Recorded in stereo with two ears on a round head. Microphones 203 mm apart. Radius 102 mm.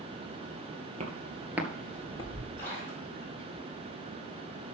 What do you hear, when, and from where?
1.0 s footsteps: 30° right (ahead or behind), 2.5 m; by 2.5 s 25° left (ahead or behind), 2.5 m
2.6 s a splash: 10° left (ahead or behind), 6 m